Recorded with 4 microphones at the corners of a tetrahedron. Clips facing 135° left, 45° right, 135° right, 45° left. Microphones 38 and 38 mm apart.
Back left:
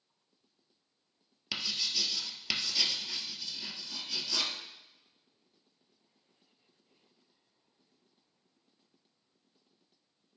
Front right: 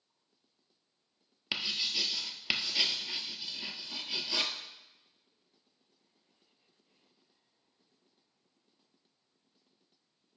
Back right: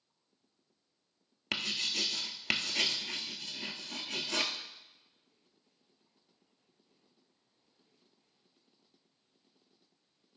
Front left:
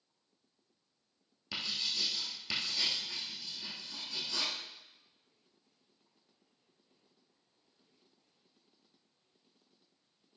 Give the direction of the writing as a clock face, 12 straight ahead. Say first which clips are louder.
Front right 1 dB, back right 3 dB; 4 o'clock.